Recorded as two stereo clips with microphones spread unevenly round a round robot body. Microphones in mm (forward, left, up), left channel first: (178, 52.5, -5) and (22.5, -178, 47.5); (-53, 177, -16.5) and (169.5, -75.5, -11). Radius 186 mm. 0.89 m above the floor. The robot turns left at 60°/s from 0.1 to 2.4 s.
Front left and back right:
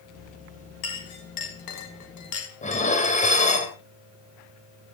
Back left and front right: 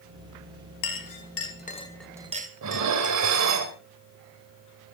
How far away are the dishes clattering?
About 3 m.